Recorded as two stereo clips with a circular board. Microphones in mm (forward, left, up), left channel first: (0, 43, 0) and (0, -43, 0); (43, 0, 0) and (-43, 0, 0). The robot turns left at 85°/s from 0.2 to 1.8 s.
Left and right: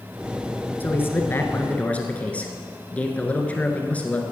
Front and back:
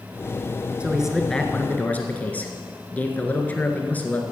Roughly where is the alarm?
I don't hear an alarm.